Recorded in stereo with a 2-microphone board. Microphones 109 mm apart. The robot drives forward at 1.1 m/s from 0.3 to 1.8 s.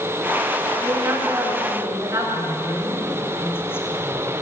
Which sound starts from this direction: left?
A woman speaking, at 2.3 s.